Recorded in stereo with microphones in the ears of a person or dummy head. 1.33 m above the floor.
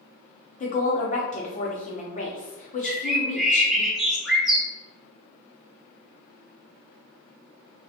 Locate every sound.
0.6 s a woman speaking: 40° left (ahead or behind), 0.9 m
2.8 s a bird: 5° right (ahead or behind), 0.8 m